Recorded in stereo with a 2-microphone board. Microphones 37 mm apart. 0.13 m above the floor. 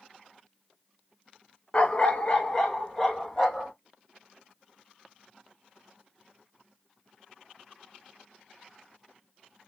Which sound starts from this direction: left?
A dog barking, at 1.7 s.